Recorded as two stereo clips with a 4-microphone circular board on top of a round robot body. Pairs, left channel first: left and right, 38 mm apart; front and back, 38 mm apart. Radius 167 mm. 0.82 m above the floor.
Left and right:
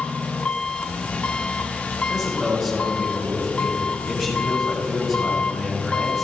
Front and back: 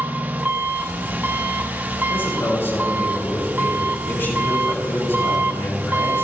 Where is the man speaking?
15° right, 7 m.